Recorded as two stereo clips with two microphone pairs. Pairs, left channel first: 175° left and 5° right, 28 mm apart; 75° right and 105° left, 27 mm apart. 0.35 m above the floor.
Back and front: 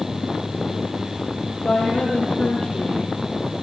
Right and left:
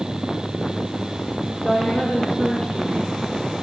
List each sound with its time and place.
1.6 s a woman speaking: 130° right, 9.5 m